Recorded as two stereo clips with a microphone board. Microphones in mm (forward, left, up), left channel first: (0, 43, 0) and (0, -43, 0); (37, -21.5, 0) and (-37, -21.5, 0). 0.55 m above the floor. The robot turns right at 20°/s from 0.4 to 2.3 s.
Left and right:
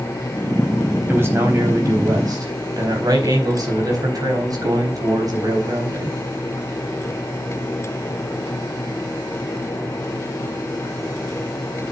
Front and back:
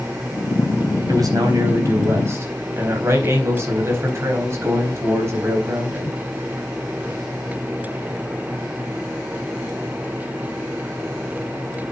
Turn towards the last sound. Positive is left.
turn(degrees=-130)